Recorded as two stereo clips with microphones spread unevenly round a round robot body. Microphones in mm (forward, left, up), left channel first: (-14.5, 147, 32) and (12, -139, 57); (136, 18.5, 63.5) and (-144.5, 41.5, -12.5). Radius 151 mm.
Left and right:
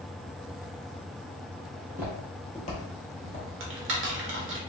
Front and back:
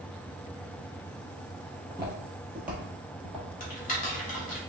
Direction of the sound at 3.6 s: 70° right.